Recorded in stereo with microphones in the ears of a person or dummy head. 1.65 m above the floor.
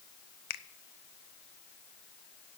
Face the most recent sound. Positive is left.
turn(degrees=55)  # may be behind; listen again after turning